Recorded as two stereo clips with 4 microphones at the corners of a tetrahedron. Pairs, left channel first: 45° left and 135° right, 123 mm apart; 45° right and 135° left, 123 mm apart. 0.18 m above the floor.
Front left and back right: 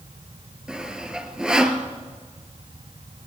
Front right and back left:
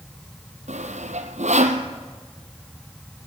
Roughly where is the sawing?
Behind left.